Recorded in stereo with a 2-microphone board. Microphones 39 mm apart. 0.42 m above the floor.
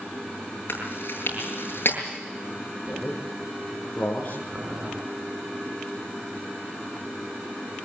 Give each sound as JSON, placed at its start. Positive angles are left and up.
{"t": 0.7, "sound": "chewing", "side_deg": 60, "distance_m": 8.0}
{"t": 2.9, "sound": "a man speaking", "side_deg": 40, "distance_m": 7.5}
{"t": 4.5, "sound": "boiling", "side_deg": -30, "distance_m": 5.0}